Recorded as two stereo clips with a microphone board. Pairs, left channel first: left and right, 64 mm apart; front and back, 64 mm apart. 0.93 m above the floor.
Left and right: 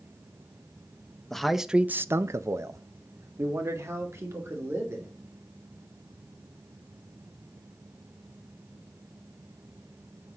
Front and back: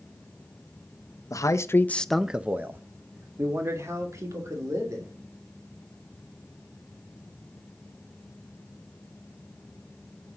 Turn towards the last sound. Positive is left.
turn(degrees=-140)